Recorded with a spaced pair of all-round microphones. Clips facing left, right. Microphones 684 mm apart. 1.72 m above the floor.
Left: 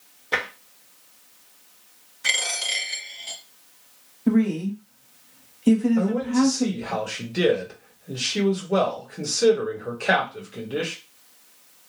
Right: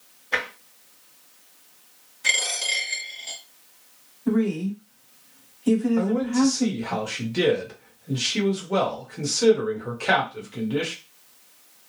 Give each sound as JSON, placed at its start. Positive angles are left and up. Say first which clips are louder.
{"t": 0.3, "sound": "tapping", "louder": "left 1 dB", "side_deg": 60, "distance_m": 1.0}
{"t": 2.2, "sound": "a dropped coin", "louder": "right 1 dB", "side_deg": 10, "distance_m": 1.3}
{"t": 4.3, "sound": "a woman speaking", "louder": "left 2 dB", "side_deg": 55, "distance_m": 1.3}
{"t": 6.0, "sound": "a man speaking", "louder": "even", "side_deg": -35, "distance_m": 1.1}